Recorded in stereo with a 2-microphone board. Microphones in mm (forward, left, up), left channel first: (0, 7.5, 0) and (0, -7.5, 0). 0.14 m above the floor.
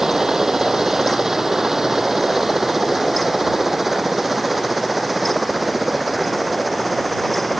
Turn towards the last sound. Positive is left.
turn(degrees=-10)  # may be behind; listen again after turning